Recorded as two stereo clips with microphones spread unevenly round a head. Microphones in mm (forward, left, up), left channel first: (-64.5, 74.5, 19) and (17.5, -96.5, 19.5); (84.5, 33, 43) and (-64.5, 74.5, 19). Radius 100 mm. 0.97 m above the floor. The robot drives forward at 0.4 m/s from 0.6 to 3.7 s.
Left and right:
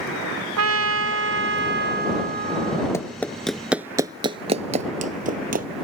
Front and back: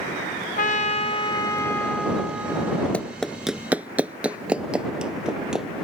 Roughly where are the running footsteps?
Ahead left.